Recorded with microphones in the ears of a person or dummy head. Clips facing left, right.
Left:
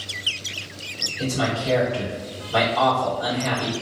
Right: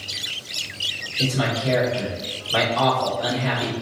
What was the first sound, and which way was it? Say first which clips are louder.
A man speaking: right 1 dB; 30° right (ahead or behind).